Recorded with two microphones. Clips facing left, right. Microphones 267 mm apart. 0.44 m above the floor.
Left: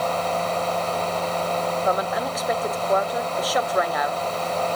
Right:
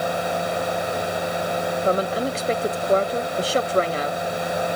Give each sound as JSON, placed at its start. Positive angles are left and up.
{"t": 1.9, "sound": "a woman speaking", "side_deg": -30, "distance_m": 0.8}